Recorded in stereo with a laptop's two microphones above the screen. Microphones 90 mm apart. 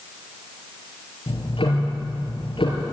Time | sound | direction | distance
1.3 | ticking | 75° left (ahead or behind) | 3.5 m